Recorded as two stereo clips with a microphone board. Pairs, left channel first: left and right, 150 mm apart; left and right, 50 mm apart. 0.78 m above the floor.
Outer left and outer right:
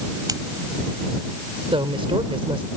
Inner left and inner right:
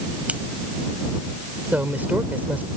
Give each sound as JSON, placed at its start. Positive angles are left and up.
{"t": 0.3, "sound": "scissors", "side_deg": -25}
{"t": 1.7, "sound": "a woman speaking", "side_deg": -35}